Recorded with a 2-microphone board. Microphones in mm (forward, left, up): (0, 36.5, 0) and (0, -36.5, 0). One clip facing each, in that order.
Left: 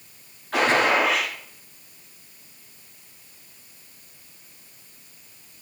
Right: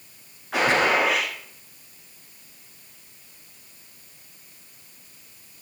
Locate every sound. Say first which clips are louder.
0.5 s a gunshot: left 1 dB; 10° right (ahead or behind), 9 m